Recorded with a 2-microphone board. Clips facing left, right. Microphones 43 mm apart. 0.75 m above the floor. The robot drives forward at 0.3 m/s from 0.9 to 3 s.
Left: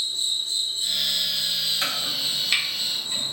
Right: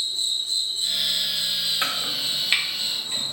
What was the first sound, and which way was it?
An insect, 75° left (ahead or behind).